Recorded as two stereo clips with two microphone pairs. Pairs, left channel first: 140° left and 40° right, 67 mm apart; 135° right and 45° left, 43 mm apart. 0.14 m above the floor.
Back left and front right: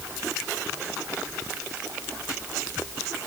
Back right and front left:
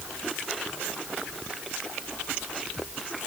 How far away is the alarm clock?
I don't hear an alarm clock.